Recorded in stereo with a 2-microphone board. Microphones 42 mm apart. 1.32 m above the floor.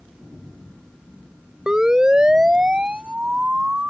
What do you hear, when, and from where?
1.7 s a siren: 15° right (ahead or behind); by 3.9 s 35° right (ahead or behind)